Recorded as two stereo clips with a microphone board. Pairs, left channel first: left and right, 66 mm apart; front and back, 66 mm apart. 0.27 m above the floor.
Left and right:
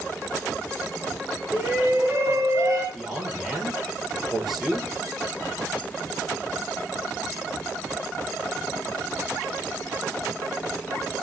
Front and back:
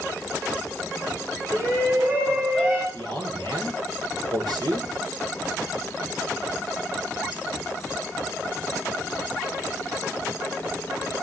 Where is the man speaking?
175° right, 5 m.